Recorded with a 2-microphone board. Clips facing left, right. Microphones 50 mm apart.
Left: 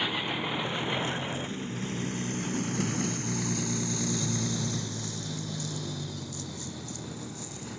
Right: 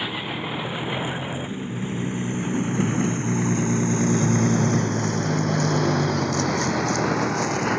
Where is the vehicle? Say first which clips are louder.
Right 2 dB; 10° right (ahead or behind); by 7.8 s 75° right (ahead or behind).